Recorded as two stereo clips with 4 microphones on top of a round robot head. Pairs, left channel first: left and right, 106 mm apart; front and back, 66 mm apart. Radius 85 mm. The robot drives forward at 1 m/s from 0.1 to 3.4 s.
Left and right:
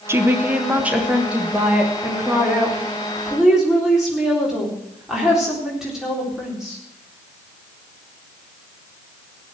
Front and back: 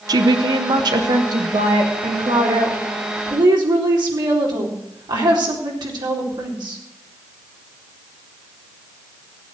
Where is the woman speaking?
155° right, 0.9 m; by 6.8 s 175° right, 4 m.